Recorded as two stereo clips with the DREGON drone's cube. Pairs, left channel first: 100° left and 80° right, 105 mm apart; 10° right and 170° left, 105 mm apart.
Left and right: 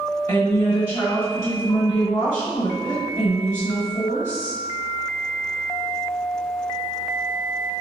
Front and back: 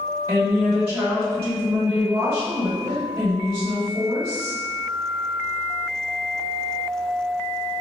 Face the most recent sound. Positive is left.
turn(degrees=110)